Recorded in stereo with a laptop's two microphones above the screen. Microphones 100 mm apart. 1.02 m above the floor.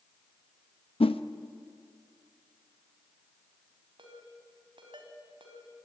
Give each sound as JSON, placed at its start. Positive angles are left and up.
{"t": 1.0, "sound": "a whoosh", "side_deg": 80, "distance_m": 0.7}
{"t": 4.0, "sound": "a ringtone", "side_deg": -65, "distance_m": 3.5}